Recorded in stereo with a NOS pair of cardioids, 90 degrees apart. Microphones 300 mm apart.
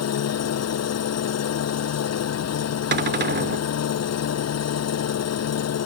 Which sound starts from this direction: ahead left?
An engine running, at 0.0 s.